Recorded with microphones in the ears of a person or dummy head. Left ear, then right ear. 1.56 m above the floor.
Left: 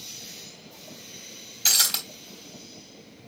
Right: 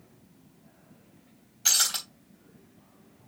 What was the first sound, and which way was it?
Breaking glass, 5° left (ahead or behind).